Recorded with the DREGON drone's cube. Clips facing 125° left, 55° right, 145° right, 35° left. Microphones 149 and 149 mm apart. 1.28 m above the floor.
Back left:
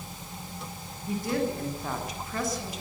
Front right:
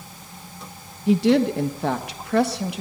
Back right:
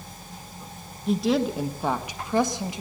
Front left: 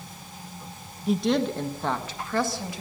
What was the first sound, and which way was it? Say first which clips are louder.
A woman speaking: front right 11 dB, back right 1 dB; 55° right.